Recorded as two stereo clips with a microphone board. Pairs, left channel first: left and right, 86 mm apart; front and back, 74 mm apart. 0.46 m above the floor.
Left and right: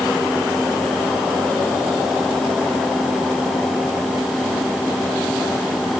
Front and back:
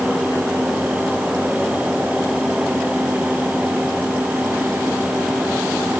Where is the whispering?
I don't hear whispering.